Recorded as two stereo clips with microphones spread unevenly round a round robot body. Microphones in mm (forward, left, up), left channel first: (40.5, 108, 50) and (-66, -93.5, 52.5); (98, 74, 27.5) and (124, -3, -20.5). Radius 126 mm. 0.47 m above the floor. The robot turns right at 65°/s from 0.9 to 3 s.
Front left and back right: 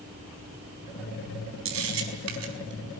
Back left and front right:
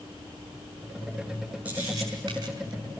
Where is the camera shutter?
145° right, 4.5 m; by 3.0 s 60° right, 4.5 m.